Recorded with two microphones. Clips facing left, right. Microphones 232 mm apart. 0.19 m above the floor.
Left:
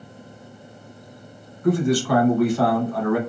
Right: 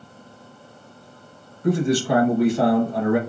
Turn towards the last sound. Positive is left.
turn(degrees=-25)  # may be behind; listen again after turning